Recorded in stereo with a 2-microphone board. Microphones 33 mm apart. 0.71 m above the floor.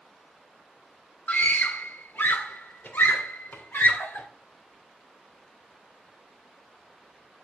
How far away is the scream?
About 1.7 m.